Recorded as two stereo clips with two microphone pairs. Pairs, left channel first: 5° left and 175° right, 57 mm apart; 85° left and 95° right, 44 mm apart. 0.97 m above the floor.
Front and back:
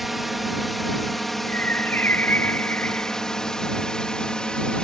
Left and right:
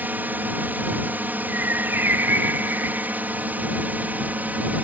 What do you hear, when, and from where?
0.0 s a drone: 90° right; by 4.8 s 65° right
1.5 s a bird: 55° right